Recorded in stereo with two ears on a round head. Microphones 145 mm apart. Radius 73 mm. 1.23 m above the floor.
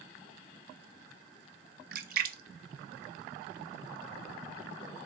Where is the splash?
55° right (ahead or behind), 0.8 m.